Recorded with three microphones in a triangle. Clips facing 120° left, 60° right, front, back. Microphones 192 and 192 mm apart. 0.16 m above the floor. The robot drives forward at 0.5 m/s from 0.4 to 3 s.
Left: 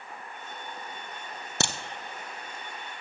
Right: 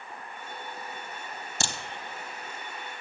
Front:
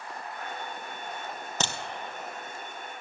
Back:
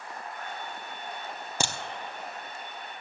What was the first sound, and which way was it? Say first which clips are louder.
A crack: left 4 dB, back 1 dB; 100° left.